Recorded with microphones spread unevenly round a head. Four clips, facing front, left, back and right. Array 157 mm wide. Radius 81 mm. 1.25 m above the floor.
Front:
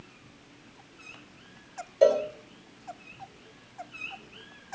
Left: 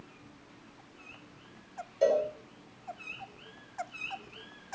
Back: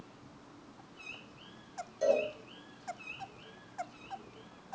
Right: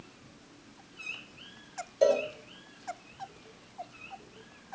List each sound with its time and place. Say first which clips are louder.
2.0 s a cowbell: right 1 dB, front 8 dB; 15° right, 4 m